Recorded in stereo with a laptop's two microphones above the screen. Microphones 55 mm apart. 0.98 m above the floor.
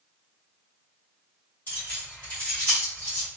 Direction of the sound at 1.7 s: 40° left (ahead or behind).